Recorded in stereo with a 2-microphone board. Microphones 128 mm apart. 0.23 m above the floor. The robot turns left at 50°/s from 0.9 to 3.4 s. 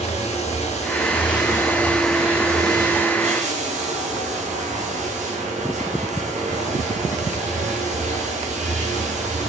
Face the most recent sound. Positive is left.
turn(degrees=-65)